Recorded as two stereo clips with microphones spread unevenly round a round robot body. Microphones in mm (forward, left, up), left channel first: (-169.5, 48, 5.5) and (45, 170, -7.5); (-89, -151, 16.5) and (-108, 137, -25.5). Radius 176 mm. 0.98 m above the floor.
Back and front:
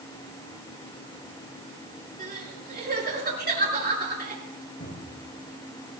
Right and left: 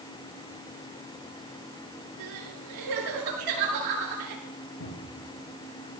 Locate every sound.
2.2 s crying: 80° left, 6.5 m
4.8 s a cupboard door: 100° right, 5.5 m